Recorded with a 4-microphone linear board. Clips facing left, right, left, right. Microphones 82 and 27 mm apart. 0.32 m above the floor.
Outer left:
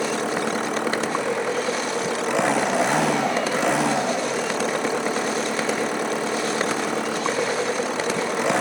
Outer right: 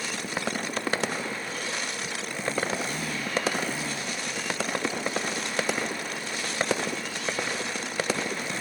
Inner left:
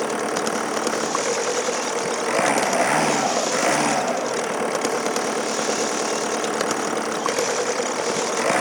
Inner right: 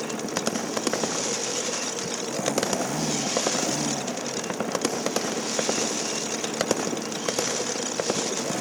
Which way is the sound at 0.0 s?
75° left (ahead or behind).